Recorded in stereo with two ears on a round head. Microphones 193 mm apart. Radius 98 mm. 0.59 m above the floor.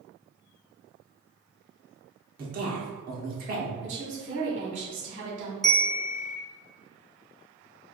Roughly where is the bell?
Centre.